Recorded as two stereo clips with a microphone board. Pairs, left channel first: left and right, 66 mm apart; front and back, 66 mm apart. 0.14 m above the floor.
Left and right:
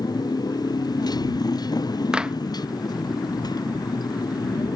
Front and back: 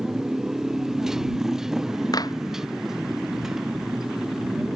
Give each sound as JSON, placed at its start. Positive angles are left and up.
{"t": 0.0, "sound": "a motorcycle", "azimuth_deg": 95}
{"t": 2.1, "sound": "a clap", "azimuth_deg": -10}